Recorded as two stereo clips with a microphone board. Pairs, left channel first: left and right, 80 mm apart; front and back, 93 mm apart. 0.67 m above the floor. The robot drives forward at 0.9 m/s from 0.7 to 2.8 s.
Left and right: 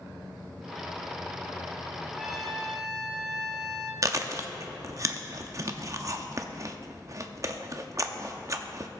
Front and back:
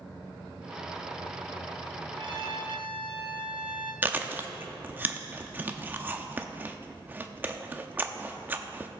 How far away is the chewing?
About 0.7 m.